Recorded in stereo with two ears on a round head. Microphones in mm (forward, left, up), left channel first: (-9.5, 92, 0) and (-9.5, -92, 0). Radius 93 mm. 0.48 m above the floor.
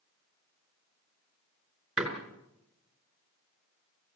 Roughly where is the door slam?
Centre.